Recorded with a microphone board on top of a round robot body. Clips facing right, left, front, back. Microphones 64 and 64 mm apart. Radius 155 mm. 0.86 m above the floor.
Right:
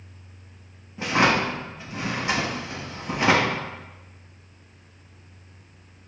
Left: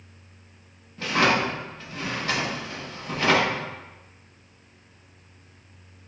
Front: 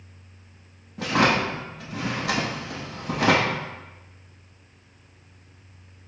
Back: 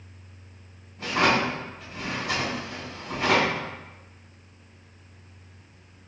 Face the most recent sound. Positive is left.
turn(degrees=-15)